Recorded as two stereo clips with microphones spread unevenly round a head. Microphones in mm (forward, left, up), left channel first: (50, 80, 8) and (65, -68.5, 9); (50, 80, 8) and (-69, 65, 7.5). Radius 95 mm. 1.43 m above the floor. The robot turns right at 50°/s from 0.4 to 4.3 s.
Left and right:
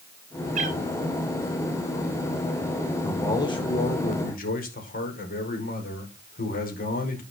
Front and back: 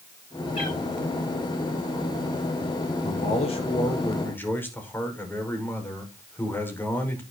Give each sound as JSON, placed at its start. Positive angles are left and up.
{"t": 0.6, "sound": "a cat meowing", "azimuth_deg": -55, "distance_m": 5.0}
{"t": 3.0, "sound": "a man speaking", "azimuth_deg": 15, "distance_m": 5.5}